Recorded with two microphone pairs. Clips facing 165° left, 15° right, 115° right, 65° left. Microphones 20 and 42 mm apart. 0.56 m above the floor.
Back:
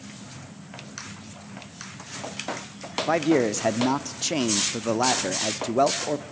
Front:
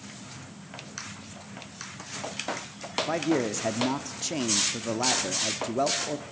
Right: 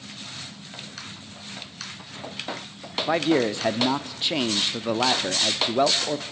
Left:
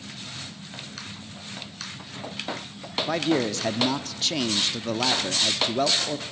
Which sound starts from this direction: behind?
A man speaking, at 3.1 s.